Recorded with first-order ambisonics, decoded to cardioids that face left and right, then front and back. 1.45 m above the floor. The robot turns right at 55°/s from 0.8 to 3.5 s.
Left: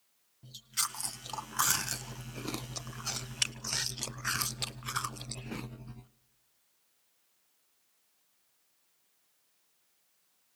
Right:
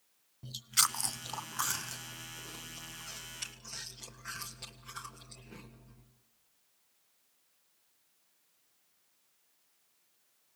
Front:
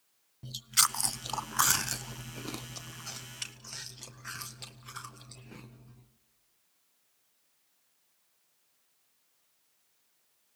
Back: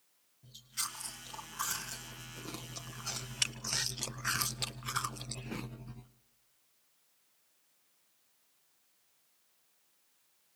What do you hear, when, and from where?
0.4 s chewing: 25° right, 0.6 m; by 6.1 s 125° left, 0.6 m